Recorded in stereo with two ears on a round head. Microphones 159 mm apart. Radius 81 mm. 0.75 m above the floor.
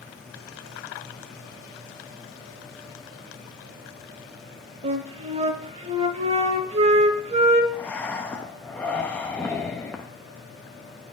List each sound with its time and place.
4.8 s a flute: 35° right (ahead or behind), 0.7 m
7.7 s breathing: 10° left (ahead or behind), 0.7 m